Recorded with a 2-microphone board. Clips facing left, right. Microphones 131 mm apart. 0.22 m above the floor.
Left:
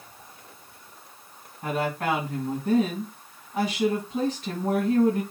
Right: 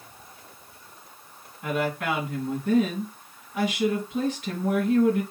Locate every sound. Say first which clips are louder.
1.6 s a woman speaking: even; 40° left (ahead or behind), 2 m